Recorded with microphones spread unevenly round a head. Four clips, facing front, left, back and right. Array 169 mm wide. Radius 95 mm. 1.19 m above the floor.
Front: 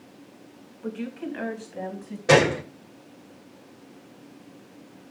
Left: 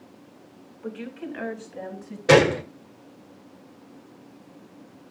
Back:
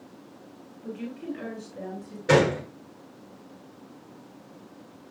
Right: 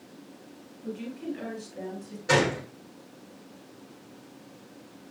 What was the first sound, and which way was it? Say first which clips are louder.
A woman speaking: even, front 3 dB; 35° left.